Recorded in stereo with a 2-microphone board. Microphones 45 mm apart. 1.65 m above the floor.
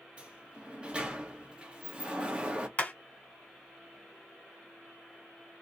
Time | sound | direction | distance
0.2 | a sliding door | 25° right (ahead or behind) | 0.9 m
2.8 | hammering | 30° left (ahead or behind) | 1.9 m